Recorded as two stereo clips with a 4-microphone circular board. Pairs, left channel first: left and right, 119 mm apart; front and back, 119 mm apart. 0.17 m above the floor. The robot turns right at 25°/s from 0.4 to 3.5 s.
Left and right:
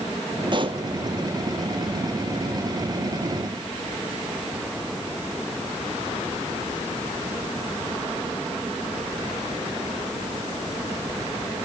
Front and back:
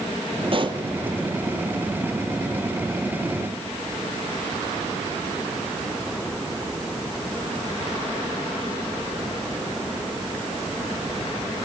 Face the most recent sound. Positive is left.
turn(degrees=-65)